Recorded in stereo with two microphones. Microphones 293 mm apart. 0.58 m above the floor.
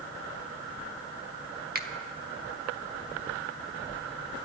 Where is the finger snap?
35° right (ahead or behind), 0.9 m.